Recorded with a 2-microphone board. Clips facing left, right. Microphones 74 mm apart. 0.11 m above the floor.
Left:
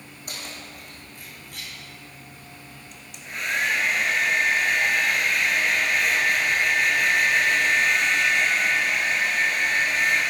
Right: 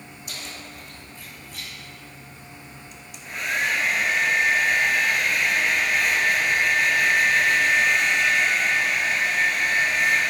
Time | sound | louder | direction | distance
0.3 | keys jangling | left 1 dB | 50° left (ahead or behind) | 4 m
2.9 | a hair dryer | even | centre (ahead or behind) | 1.2 m